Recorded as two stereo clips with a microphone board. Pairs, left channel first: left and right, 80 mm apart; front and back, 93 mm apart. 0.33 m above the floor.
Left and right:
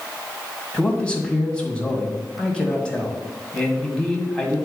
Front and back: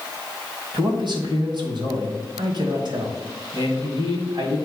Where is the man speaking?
165° left, 1.8 m.